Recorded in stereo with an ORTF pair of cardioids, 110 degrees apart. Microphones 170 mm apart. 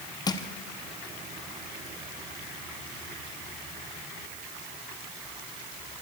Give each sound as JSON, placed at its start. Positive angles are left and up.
{"t": 0.3, "sound": "crushing", "azimuth_deg": 25, "distance_m": 1.2}